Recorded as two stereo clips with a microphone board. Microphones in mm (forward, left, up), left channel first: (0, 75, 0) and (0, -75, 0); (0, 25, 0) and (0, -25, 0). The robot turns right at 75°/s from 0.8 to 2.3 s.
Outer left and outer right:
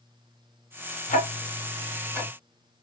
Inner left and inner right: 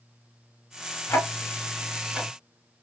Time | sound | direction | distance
1.1 | ticking | 60° left (ahead or behind) | 0.7 m